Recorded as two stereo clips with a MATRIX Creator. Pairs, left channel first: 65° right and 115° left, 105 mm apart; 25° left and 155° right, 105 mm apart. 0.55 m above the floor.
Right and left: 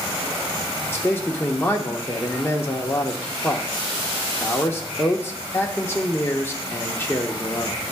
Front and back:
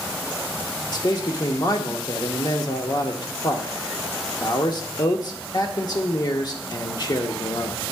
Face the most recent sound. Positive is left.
turn(degrees=-5)